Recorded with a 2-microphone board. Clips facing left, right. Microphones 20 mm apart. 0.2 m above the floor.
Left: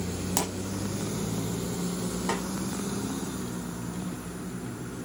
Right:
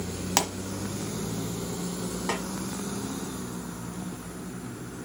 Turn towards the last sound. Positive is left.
turn(degrees=-5)  # may be behind; listen again after turning